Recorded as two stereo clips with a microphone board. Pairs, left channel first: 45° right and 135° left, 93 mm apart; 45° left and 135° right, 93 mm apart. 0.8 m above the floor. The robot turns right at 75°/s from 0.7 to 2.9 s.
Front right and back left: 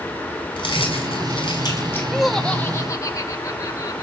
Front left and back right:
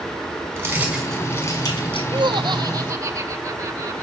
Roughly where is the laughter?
Behind right.